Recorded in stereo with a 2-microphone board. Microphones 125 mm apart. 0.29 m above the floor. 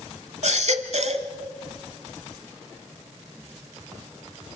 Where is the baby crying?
65° right (ahead or behind), 1.1 m.